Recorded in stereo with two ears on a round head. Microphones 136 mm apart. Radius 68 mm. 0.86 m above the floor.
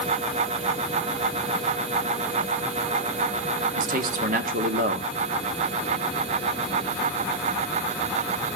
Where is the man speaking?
60° right (ahead or behind), 1.8 m.